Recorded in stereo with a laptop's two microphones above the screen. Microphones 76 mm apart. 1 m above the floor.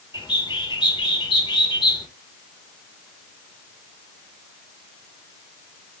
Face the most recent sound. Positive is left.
turn(degrees=75)  # may be behind; listen again after turning